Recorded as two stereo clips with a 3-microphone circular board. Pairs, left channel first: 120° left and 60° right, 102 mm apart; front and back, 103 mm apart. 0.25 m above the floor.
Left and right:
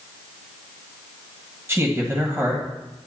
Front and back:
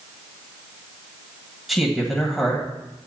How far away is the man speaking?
About 1.6 m.